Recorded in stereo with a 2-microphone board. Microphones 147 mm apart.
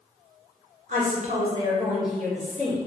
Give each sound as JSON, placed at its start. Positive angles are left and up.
{"t": 0.9, "sound": "a woman speaking", "side_deg": -65, "distance_m": 1.2}